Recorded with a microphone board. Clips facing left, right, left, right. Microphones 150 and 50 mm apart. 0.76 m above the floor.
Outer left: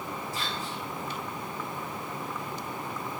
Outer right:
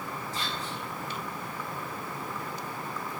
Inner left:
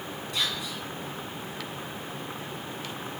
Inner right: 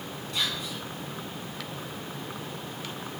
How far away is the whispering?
About 1.6 m.